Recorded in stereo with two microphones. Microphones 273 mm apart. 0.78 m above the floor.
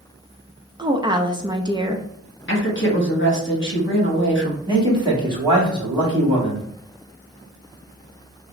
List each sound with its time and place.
0.8 s a woman speaking: 15° right (ahead or behind), 0.6 m
2.5 s a woman speaking: 45° left (ahead or behind), 1.3 m
4.7 s a man speaking: 15° right (ahead or behind), 2.0 m